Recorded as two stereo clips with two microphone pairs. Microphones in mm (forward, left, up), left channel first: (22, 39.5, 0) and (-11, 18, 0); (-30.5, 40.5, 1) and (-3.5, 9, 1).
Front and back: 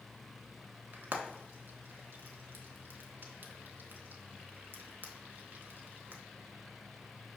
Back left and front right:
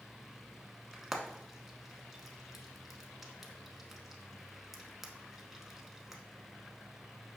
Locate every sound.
0.9 s frying: 135° right, 0.6 m